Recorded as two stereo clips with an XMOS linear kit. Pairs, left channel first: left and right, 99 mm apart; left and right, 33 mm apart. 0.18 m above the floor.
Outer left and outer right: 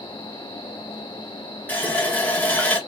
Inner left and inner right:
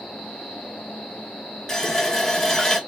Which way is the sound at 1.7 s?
15° left (ahead or behind).